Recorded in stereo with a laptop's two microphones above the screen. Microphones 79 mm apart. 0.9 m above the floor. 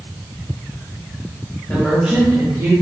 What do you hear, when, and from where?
1.7 s a woman speaking: 20° left (ahead or behind), 0.9 m; by 2.7 s 50° right (ahead or behind), 1.3 m